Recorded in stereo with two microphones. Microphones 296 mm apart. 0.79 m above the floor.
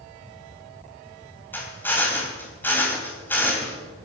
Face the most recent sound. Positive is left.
turn(degrees=5)  # may be behind; listen again after turning